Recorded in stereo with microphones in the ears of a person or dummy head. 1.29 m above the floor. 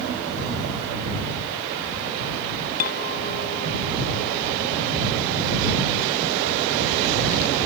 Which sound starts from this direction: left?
A clink, at 2.8 s.